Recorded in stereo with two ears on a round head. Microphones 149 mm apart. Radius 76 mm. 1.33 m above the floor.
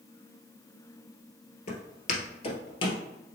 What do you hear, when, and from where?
1.7 s footsteps: 50° left (ahead or behind), 1.8 m; by 3.0 s 30° left (ahead or behind), 1.8 m